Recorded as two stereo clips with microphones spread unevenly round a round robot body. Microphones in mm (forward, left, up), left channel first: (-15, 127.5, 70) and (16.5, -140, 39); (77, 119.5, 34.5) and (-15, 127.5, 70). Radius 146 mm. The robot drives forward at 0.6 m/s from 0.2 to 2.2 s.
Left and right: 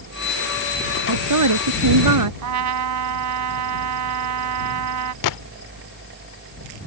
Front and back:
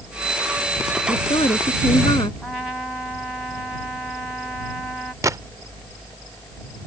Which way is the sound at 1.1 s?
65° right.